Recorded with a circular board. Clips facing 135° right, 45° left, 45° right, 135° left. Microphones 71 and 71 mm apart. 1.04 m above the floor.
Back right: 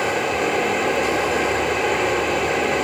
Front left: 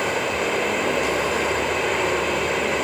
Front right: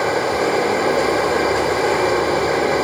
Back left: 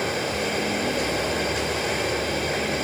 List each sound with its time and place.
0.0 s running water: 45° right, 1.1 m